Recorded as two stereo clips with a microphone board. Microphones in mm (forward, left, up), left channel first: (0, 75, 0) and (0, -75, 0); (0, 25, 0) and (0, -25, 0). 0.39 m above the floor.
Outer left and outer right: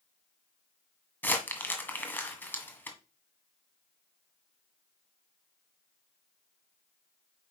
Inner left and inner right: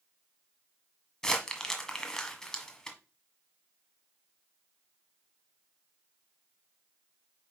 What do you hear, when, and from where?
1.2 s crumpling: 15° left (ahead or behind), 1.5 m